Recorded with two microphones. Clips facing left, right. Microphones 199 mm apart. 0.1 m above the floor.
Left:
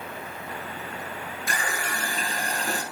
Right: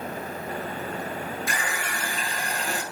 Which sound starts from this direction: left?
A running tap, at 1.5 s.